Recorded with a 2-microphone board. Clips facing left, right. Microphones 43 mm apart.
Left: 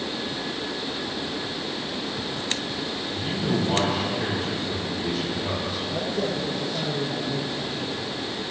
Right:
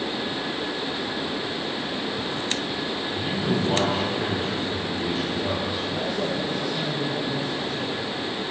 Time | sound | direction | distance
3.1 | a man speaking | 15° right (ahead or behind) | 4.5 m
5.9 | a man speaking | 25° left (ahead or behind) | 2.5 m